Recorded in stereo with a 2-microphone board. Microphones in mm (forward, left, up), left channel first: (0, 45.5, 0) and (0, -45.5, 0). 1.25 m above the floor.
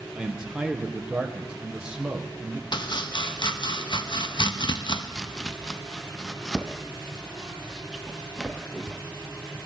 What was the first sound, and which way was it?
A man speaking, 10° right (ahead or behind).